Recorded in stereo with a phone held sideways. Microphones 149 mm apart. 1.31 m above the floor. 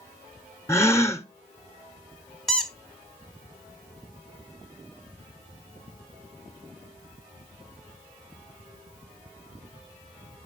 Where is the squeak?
5° left (ahead or behind), 1.1 m.